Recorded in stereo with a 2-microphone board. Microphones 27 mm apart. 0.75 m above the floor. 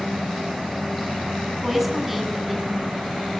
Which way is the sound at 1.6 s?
10° right (ahead or behind).